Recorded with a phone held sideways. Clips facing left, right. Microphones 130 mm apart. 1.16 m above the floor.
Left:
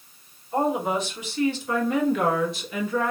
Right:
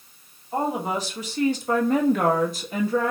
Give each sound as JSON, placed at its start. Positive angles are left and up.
{"t": 0.5, "sound": "a woman speaking", "side_deg": -30, "distance_m": 1.2}